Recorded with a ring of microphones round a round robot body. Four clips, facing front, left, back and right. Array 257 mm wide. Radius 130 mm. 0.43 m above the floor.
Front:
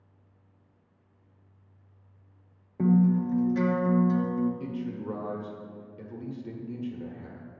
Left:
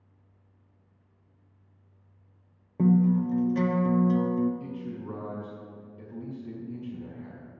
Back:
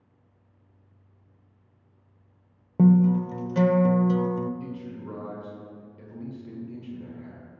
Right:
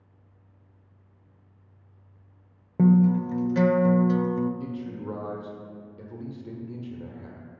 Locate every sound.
2.8 s a guitar: 145° right, 0.6 m
4.6 s a man speaking: 55° right, 1.7 m